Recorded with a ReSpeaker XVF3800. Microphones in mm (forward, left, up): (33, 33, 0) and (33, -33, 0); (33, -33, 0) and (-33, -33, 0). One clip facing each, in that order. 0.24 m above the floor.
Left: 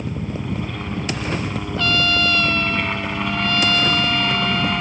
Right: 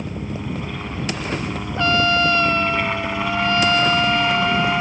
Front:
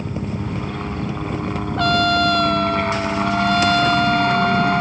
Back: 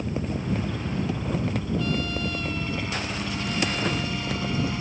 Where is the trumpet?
25° right.